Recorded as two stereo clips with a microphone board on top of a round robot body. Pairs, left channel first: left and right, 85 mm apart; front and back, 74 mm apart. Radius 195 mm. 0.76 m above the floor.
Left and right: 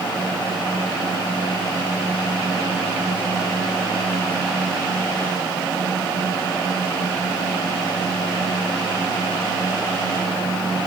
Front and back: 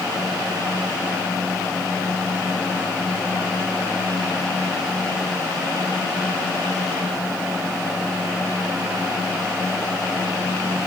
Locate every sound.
Only background noise.